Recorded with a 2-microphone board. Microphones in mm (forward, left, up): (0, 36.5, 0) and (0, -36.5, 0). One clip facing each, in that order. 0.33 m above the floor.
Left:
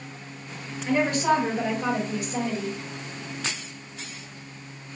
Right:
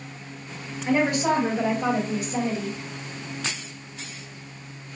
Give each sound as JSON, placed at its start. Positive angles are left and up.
{"t": 0.8, "sound": "a woman speaking", "side_deg": -20, "distance_m": 1.5}